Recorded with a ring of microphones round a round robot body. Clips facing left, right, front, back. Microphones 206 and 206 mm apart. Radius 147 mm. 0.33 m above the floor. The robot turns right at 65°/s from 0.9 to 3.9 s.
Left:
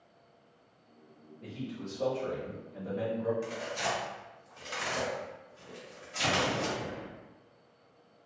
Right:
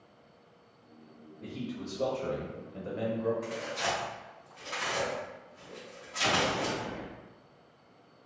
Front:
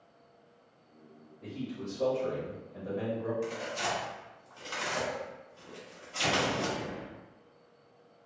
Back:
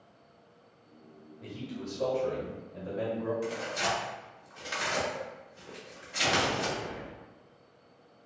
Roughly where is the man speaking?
Behind.